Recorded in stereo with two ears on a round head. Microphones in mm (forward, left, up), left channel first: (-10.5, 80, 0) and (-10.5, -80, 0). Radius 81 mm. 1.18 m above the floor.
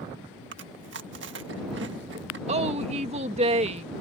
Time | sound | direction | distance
0.5 | chewing | 75° right (ahead or behind) | ?
2.5 | a woman speaking | 40° right (ahead or behind) | ?